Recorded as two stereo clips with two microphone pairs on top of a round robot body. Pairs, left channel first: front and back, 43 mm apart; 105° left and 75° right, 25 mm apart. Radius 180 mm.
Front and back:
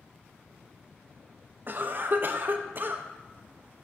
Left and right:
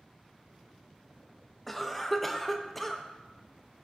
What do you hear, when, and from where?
1.7 s a cough: 165° right, 0.9 m